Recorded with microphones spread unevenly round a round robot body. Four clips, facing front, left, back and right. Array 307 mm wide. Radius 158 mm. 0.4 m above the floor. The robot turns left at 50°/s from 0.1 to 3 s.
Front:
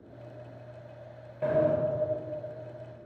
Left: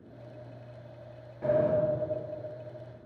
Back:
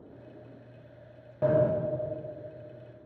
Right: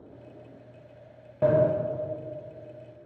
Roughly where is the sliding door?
Right.